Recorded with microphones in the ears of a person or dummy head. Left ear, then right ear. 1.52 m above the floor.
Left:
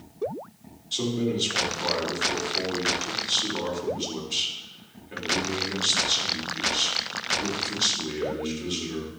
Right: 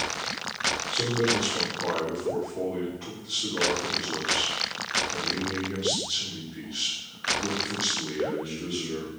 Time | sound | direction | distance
0.9 | a man speaking | 45° left (ahead or behind) | 3.5 m